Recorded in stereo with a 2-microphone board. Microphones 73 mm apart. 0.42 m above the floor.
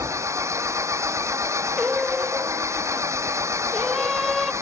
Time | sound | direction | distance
0.0 | an engine running | 40° right (ahead or behind) | ?
1.8 | singing | 5° right (ahead or behind) | ?